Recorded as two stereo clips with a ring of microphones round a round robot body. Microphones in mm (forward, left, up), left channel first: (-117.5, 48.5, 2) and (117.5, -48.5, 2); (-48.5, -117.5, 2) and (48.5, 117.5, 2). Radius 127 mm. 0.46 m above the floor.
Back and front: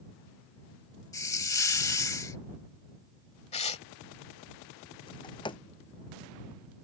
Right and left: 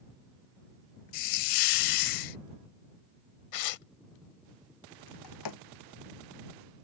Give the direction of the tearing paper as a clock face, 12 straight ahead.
4 o'clock.